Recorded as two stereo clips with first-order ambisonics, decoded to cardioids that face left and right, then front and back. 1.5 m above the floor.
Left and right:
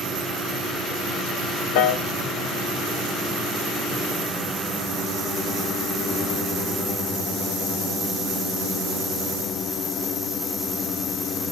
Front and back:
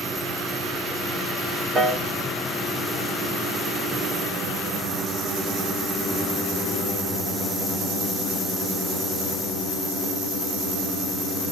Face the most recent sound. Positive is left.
turn(degrees=100)